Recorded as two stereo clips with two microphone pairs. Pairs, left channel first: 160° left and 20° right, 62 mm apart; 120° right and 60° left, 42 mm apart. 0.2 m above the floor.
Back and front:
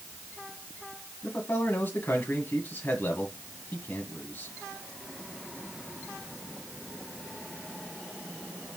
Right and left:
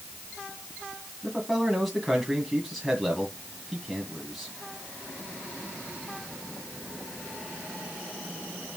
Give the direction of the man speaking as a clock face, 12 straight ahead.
7 o'clock.